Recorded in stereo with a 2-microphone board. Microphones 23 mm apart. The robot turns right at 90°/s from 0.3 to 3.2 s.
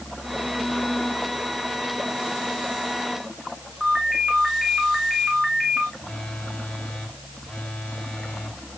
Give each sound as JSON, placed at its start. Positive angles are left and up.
{"t": 3.8, "sound": "a ringtone", "side_deg": -5, "distance_m": 6.0}
{"t": 6.0, "sound": "a phone buzzing", "side_deg": 60, "distance_m": 6.5}